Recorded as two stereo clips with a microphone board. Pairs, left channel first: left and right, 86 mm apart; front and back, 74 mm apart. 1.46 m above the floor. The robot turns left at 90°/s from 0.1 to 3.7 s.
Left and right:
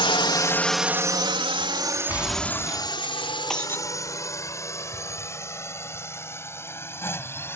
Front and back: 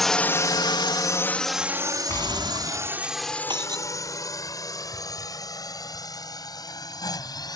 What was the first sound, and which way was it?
A drone, 85° left.